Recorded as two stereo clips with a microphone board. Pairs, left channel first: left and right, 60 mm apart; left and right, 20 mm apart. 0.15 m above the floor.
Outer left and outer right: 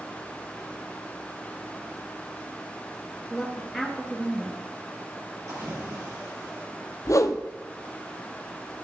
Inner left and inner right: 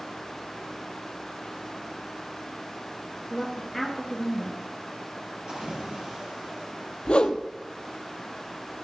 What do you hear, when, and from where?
3.3 s a woman speaking: centre (ahead or behind), 2.5 m
5.5 s a splash: 60° right (ahead or behind), 4 m
7.0 s a whoosh: 65° left (ahead or behind), 0.7 m